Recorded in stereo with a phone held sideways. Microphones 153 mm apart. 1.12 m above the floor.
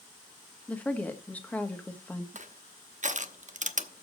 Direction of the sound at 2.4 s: 55° right (ahead or behind).